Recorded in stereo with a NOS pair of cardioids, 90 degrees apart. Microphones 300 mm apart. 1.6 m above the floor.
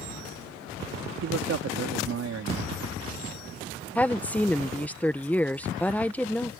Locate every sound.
1.2 s a man speaking: 50° right
4.0 s a woman speaking: 5° left